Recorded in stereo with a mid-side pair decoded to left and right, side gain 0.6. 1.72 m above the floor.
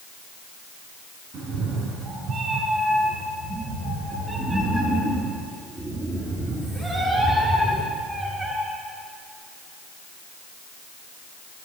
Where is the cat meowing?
50° right, 5 m; by 8.6 s 20° right, 8.5 m.